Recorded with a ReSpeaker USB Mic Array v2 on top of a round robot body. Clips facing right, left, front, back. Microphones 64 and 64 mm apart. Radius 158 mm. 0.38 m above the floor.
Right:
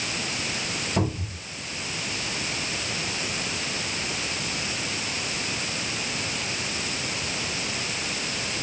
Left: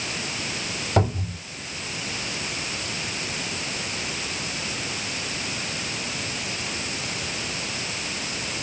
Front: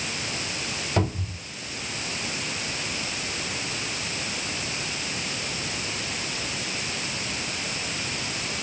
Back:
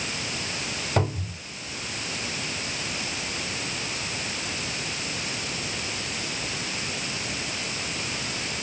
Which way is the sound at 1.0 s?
115° left.